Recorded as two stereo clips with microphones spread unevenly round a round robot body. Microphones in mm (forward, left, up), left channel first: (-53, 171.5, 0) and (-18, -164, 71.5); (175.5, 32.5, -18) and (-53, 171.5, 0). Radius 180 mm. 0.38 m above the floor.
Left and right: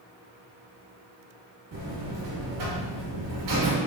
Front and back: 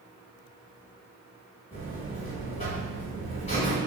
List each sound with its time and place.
1.7 s a buzzer: 105° right, 1.4 m